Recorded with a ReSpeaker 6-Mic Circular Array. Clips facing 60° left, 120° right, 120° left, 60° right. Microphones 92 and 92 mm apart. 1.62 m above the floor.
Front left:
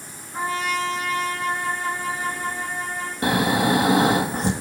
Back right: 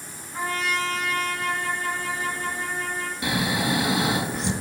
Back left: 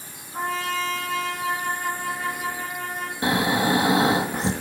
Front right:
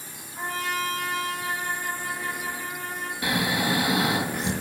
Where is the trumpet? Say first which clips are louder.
Front left 2 dB, back left 3 dB; 130° left, 3.5 m.